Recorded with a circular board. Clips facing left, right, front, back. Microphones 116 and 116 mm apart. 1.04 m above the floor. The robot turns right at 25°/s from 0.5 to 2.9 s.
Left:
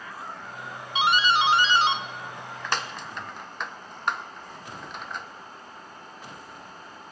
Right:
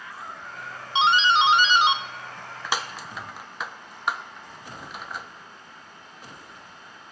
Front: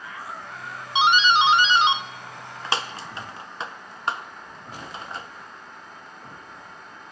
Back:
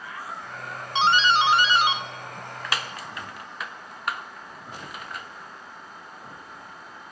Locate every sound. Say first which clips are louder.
0.9 s a doorbell: right 3 dB, front 2 dB; 60° right, 0.5 m; by 5.3 s 10° right, 0.5 m